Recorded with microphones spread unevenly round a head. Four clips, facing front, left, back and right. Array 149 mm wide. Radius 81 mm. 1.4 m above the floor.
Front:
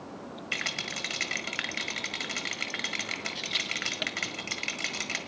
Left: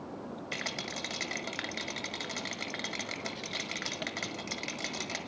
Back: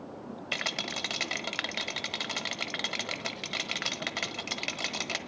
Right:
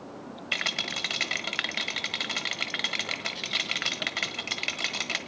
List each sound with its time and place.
0.5 s a rattle: 165° right, 1.2 m